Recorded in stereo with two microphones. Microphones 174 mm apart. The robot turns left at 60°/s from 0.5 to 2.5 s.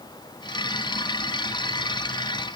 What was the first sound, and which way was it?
Only background noise.